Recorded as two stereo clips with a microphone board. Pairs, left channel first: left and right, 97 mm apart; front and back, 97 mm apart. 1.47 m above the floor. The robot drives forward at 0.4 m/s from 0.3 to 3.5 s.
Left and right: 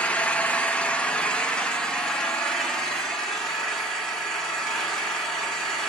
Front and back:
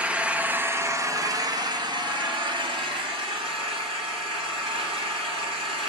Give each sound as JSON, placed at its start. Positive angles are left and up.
{"t": 0.0, "sound": "an engine running", "azimuth_deg": 135, "distance_m": 0.7}